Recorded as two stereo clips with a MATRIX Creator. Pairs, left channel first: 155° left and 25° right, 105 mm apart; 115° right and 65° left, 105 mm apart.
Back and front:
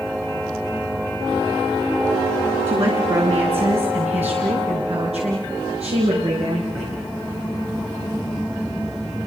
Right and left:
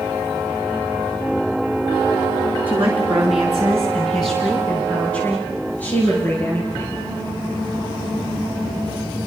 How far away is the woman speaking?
About 3.5 m.